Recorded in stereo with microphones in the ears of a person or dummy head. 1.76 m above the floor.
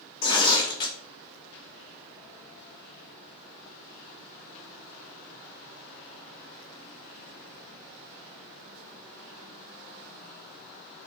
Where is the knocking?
I don't hear knocking.